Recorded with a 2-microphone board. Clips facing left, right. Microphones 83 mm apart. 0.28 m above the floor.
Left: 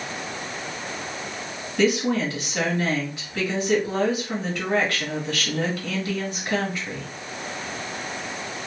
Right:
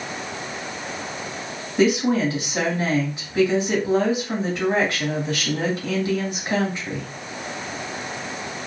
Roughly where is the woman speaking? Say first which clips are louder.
Right 3 dB; right.